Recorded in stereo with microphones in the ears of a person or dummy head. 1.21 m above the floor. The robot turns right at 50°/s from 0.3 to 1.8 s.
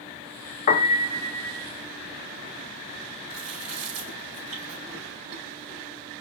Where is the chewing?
50° right (ahead or behind), 3 m.